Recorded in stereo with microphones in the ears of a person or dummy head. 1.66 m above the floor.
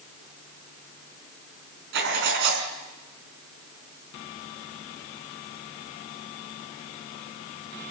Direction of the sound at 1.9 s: 65° right (ahead or behind).